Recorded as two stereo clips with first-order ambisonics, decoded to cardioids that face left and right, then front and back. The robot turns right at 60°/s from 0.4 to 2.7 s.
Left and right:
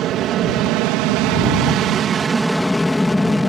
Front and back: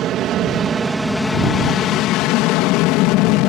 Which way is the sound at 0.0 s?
130° right.